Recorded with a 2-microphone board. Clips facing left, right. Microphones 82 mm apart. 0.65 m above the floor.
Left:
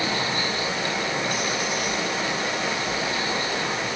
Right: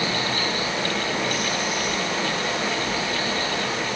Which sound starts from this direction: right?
Running water, at 0.0 s.